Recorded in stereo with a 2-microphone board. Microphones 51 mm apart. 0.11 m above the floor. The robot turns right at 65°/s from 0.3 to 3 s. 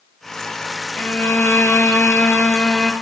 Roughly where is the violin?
Ahead left.